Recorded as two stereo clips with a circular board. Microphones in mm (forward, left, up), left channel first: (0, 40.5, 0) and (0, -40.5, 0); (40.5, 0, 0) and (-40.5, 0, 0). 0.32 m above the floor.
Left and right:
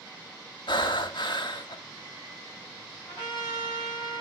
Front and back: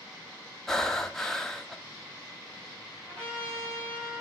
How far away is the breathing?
About 0.5 m.